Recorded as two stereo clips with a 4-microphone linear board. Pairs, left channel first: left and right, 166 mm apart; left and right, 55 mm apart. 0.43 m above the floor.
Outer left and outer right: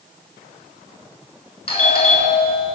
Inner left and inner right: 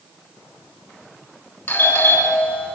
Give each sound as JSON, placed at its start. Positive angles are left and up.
{"t": 1.7, "sound": "a doorbell", "side_deg": 35, "distance_m": 7.0}